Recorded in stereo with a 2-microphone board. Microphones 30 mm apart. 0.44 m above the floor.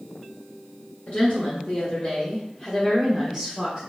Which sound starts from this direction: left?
A woman speaking, at 1.1 s.